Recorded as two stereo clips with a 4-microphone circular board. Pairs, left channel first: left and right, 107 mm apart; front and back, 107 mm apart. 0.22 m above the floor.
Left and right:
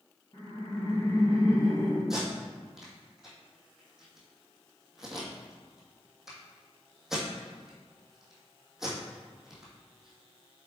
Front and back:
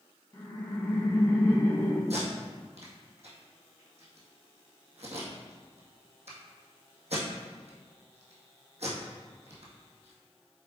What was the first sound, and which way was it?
Laughter, 65° left.